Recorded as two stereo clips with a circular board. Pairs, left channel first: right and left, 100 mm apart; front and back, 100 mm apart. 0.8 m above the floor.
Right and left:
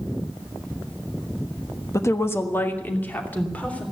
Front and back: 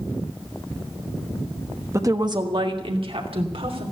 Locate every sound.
1.9 s a woman speaking: 135° right, 1.2 m; by 3.8 s 165° right, 3.5 m